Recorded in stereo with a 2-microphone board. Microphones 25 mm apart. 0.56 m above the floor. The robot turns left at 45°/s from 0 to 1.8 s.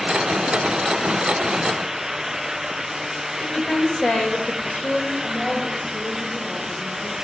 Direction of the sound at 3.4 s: 65° left (ahead or behind).